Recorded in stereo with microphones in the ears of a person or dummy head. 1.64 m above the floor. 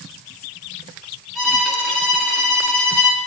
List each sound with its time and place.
1.4 s a violin: centre (ahead or behind), 3.5 m